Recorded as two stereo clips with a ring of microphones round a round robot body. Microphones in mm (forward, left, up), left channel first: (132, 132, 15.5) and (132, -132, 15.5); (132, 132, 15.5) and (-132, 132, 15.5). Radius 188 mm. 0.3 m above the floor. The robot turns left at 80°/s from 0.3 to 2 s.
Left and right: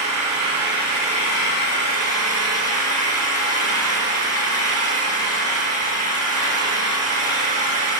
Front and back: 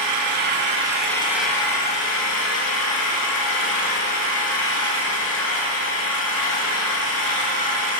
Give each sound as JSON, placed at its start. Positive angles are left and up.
{"t": 0.0, "sound": "an engine running", "azimuth_deg": 180, "distance_m": 0.9}